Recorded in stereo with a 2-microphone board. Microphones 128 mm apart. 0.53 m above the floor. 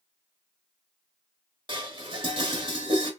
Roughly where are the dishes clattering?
Right.